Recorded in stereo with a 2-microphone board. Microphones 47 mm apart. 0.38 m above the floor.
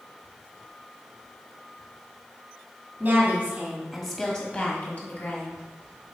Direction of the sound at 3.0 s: 40° right (ahead or behind).